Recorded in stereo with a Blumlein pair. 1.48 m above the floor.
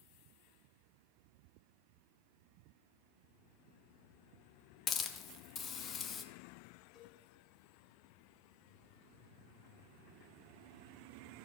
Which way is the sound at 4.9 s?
25° left.